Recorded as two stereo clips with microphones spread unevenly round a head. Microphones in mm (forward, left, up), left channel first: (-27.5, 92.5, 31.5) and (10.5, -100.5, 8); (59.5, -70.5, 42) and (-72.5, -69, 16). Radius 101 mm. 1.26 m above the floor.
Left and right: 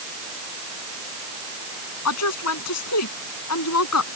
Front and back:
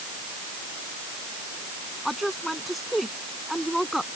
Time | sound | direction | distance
2.0 | a woman speaking | 90° left | ?